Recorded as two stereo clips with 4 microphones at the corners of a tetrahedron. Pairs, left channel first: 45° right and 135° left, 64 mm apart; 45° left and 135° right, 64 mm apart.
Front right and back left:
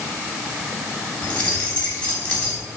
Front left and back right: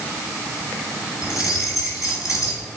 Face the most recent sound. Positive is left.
turn(degrees=25)